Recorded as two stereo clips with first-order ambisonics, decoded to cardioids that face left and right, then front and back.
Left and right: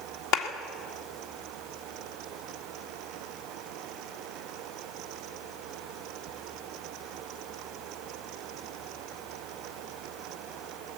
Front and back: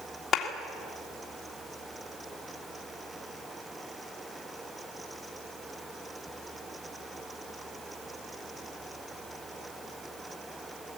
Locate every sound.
0.3 s a clap: 65° left, 2 m